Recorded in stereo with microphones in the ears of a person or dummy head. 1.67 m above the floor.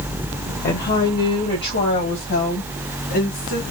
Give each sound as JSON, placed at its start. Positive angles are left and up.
{"t": 0.6, "sound": "a woman speaking", "side_deg": 45, "distance_m": 0.9}